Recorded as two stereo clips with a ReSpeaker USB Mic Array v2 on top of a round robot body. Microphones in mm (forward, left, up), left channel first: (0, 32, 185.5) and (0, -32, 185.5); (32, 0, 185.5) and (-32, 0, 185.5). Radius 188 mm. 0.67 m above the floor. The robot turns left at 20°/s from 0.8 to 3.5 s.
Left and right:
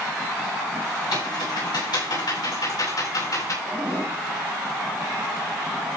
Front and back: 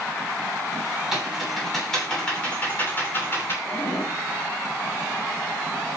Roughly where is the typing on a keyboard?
Left.